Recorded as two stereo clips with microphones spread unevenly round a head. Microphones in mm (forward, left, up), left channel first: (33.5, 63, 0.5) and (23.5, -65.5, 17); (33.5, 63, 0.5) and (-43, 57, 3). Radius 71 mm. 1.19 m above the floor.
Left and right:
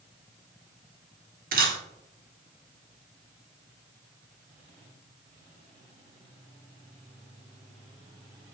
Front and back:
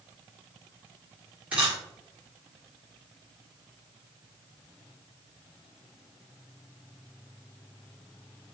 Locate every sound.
1.5 s a camera shutter: 95° right, 1.5 m